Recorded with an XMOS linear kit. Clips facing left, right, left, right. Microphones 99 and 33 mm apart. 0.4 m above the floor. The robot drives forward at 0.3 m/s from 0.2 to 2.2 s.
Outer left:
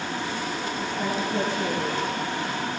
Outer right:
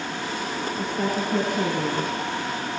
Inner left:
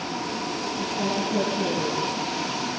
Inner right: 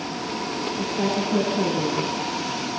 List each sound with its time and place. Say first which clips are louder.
0.8 s a woman speaking: outer right 2 dB, inner right 2 dB; 50° right (ahead or behind), 4 m; by 2.1 s 55° right (ahead or behind), 3.5 m